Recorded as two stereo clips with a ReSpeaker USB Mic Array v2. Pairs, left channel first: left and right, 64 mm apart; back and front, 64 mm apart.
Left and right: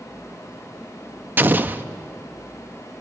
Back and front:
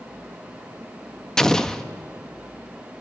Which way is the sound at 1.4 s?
105° right.